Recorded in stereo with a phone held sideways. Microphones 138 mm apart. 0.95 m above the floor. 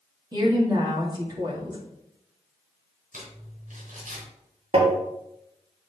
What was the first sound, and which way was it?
A woman speaking, 30° right (ahead or behind).